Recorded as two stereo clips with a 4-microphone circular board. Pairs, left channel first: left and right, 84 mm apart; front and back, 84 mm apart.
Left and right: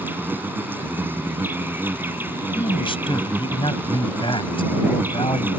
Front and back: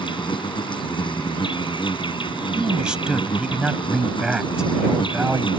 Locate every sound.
0.0 s an insect: 25° right
2.5 s a man speaking: 100° left